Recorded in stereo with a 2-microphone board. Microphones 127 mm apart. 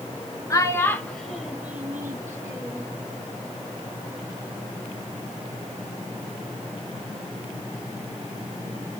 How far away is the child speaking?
About 0.7 m.